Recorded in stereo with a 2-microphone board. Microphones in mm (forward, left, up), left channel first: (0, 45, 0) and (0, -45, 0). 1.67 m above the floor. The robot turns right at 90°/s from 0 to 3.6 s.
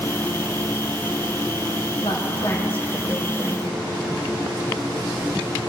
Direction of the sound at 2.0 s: 80° left.